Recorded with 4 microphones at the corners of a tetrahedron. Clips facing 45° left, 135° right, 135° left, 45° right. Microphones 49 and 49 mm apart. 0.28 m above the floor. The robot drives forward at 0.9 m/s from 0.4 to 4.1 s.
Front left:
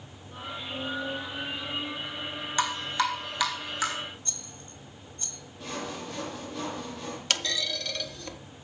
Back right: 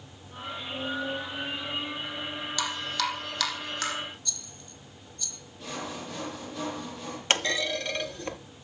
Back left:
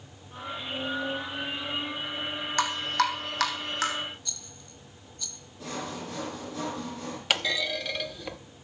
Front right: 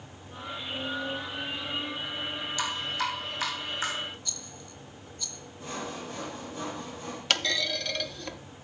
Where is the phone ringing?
I don't hear a phone ringing.